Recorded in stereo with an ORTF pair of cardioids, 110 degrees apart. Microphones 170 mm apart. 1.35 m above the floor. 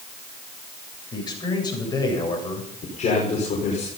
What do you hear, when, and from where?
1.1 s a man speaking: 25° left, 8 m
2.8 s a man speaking: 45° left, 5 m